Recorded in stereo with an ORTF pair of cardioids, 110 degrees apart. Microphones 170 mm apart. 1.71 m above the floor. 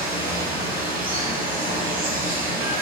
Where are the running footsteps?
I don't hear running footsteps.